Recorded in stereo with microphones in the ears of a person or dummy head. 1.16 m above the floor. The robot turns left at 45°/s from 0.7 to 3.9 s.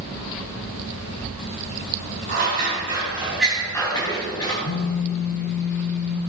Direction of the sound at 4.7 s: 50° left (ahead or behind).